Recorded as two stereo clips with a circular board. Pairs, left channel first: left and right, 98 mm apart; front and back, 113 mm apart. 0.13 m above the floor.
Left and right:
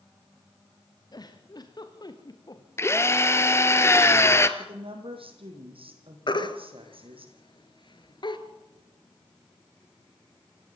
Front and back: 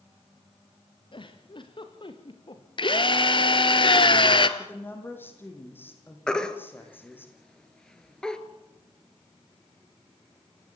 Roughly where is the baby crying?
Left.